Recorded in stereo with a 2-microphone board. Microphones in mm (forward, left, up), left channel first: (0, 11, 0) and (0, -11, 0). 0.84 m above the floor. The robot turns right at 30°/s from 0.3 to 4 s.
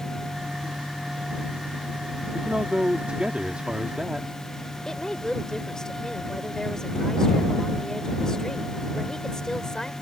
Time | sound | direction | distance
2.3 | a man speaking | 100° right | ?
4.8 | a woman speaking | 25° left (ahead or behind) | ?